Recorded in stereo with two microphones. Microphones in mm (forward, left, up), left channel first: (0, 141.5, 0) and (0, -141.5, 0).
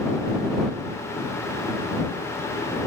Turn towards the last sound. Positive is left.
No sound to turn to.